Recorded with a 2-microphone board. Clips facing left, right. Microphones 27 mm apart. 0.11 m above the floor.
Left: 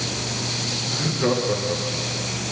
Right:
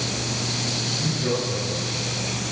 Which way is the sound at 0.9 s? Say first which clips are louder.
Left 5 dB; 80° left.